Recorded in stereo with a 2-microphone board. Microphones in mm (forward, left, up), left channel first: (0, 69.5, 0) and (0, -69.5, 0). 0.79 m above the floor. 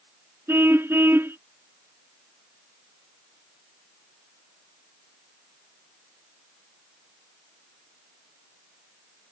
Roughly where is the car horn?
Centre.